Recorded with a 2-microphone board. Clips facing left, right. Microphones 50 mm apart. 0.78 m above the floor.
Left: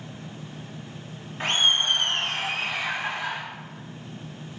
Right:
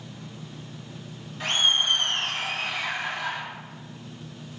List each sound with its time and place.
1.4 s laughter: 35° left (ahead or behind), 1.8 m; by 3.4 s 25° left (ahead or behind), 3 m